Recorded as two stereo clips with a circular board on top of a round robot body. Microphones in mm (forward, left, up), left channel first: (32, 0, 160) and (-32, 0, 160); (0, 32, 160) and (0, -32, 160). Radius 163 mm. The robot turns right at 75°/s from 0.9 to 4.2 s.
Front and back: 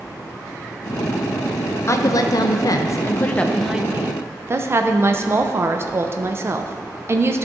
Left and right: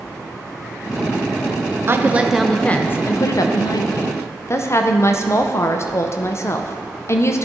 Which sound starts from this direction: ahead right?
A woman speaking, at 1.9 s.